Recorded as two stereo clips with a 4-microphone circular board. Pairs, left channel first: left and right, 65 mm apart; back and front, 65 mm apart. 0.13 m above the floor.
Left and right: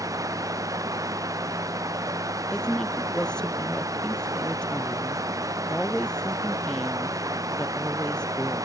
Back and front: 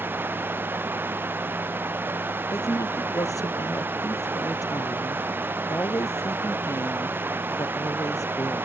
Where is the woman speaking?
165° left.